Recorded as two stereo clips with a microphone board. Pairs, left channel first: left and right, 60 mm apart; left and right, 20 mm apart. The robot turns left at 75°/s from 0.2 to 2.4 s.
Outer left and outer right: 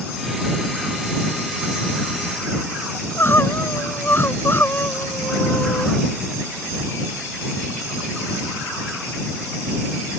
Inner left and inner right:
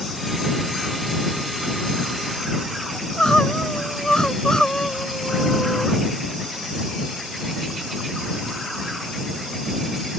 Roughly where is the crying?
Left.